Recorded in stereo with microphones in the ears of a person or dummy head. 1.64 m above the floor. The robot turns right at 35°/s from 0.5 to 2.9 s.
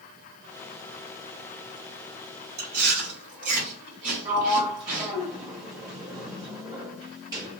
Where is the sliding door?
20° right (ahead or behind), 1.1 m.